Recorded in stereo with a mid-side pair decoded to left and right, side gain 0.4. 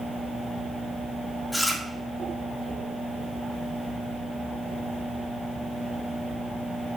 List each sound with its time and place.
1.5 s chewing: 15° left, 1.5 m